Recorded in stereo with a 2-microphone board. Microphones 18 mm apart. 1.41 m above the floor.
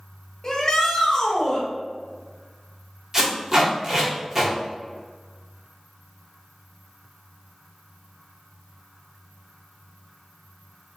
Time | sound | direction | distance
0.4 | a shout | 35° left (ahead or behind) | 1.8 m
3.1 | tape being pulled | 25° right (ahead or behind) | 1.6 m